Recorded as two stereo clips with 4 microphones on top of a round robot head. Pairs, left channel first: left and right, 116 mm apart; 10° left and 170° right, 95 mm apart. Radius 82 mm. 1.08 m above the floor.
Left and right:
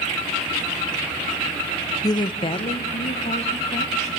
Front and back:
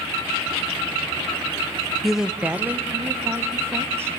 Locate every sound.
2.0 s a woman speaking: 100° left, 0.6 m; by 4.1 s 125° left, 2.5 m